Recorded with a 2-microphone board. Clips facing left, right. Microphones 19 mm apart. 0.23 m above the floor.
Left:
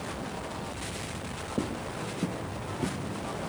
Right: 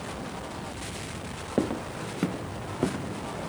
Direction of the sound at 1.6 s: 65° right (ahead or behind).